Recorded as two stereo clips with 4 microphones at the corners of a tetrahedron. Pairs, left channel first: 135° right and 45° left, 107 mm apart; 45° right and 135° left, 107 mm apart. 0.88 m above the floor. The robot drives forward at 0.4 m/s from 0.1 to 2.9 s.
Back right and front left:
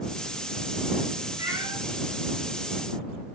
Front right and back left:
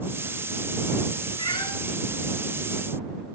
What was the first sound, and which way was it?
A cat meowing, 5° right.